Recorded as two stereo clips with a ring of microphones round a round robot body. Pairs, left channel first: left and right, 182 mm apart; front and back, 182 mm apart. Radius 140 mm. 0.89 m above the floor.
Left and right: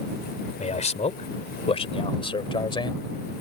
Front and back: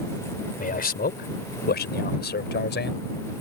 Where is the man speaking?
40° left; by 3.1 s 25° left.